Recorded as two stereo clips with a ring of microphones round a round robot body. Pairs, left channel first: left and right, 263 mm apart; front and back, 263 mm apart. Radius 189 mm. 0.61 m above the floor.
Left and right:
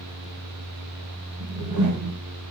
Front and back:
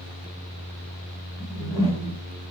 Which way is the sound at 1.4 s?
80° right.